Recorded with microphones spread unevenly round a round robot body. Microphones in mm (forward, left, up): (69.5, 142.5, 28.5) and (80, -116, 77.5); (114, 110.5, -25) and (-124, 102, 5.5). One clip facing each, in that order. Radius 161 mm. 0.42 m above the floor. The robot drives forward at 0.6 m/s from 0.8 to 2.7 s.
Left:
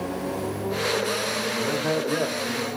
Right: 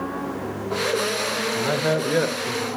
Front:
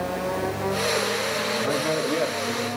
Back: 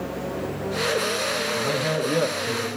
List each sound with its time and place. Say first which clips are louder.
1.6 s a man speaking: right 2 dB, even; 120° right, 1.4 m; by 2.7 s 140° right, 1.7 m